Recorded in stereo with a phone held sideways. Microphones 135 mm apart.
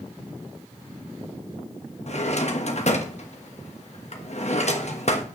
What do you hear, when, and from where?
2.1 s a drawer: 55° left (ahead or behind), 1.2 m